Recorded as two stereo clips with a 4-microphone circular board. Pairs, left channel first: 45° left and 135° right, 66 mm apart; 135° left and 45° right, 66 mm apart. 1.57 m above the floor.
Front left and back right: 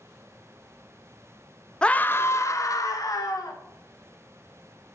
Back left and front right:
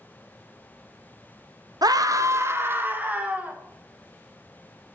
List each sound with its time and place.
1.8 s a scream: 30° right, 0.8 m; by 3.6 s 25° left, 2 m